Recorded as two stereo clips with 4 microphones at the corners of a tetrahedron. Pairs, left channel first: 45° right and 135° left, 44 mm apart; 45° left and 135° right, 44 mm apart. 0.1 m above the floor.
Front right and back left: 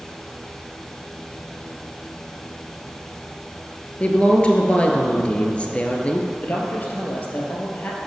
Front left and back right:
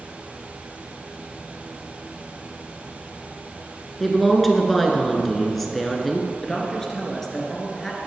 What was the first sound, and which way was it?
A woman speaking, 40° right.